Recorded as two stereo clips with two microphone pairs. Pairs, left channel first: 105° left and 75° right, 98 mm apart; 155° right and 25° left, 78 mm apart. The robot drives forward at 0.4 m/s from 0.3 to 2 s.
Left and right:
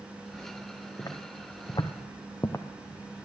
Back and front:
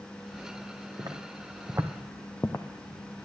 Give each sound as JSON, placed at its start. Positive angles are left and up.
{"t": 1.0, "sound": "footsteps", "azimuth_deg": 50, "distance_m": 1.9}